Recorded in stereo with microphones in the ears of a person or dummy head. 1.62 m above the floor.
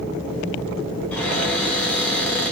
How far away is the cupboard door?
About 1.1 m.